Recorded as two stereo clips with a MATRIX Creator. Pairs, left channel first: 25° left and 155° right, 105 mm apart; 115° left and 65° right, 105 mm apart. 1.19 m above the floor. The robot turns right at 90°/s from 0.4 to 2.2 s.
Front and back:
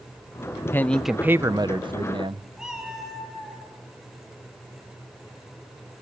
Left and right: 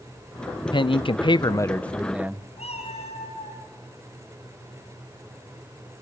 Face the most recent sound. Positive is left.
turn(degrees=120)